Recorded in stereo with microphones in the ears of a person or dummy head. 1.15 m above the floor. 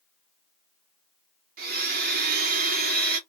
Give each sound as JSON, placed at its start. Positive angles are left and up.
{"t": 1.6, "sound": "a blender", "side_deg": -40, "distance_m": 0.8}